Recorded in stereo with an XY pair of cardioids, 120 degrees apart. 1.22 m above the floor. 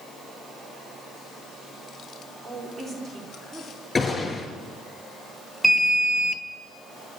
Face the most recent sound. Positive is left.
turn(degrees=-10)